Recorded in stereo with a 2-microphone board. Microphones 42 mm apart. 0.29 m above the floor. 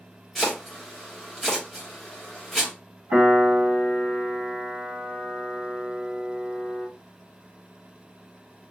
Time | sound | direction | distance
0.3 | chopping | 5° left (ahead or behind) | 1.2 m
3.1 | a piano | 35° right (ahead or behind) | 1.6 m